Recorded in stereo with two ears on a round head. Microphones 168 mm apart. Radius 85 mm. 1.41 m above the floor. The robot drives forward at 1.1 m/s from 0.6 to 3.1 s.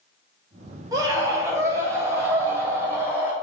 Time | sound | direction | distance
0.9 | a scream | 20° right (ahead or behind) | 5 m